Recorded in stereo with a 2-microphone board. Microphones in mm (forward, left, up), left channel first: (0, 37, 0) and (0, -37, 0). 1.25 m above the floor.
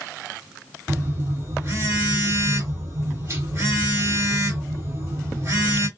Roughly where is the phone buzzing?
Right.